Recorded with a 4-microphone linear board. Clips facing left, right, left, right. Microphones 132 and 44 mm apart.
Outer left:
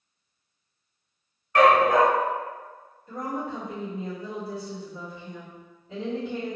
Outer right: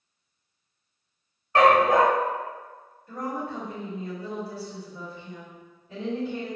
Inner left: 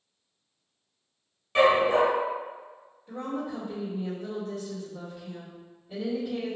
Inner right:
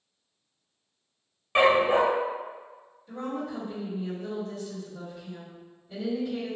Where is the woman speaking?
25° left (ahead or behind), 1.4 m.